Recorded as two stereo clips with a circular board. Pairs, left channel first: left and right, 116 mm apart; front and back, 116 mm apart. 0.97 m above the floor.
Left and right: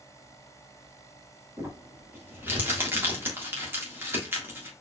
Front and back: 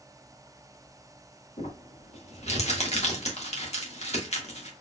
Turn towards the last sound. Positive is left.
turn(degrees=-20)